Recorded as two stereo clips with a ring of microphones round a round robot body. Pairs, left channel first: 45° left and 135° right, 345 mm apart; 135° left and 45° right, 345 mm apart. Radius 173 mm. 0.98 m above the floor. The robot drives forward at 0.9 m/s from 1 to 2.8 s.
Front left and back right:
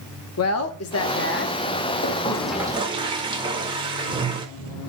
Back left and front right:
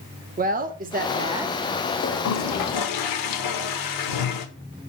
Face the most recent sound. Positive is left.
turn(degrees=150)